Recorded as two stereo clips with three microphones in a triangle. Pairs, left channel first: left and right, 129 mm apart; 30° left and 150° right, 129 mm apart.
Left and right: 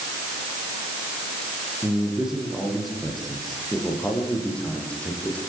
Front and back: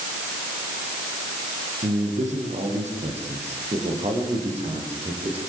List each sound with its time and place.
1.8 s a man speaking: 175° right, 8.5 m; by 5.4 s 170° left, 10 m